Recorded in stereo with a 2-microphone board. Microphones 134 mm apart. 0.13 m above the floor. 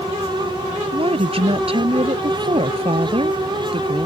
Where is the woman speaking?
50° right (ahead or behind).